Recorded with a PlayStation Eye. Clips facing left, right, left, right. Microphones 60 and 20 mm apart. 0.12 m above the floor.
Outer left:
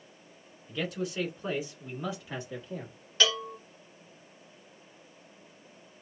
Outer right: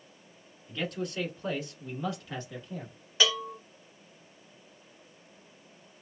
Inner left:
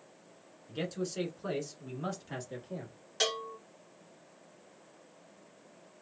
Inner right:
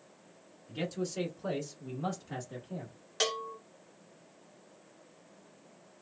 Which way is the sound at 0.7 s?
5° left (ahead or behind).